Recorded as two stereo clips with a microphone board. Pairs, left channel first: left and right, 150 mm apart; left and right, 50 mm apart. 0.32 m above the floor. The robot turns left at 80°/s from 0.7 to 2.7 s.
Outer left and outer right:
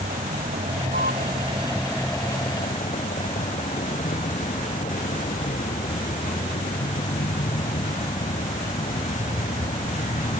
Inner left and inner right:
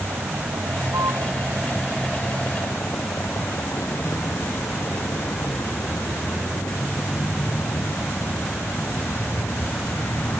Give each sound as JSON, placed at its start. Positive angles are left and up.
{"t": 0.0, "sound": "a vehicle", "azimuth_deg": -75}